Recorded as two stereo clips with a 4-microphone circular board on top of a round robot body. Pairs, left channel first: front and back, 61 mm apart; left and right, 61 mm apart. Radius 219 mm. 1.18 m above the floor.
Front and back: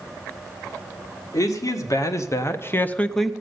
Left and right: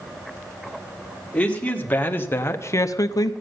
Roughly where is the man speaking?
Ahead.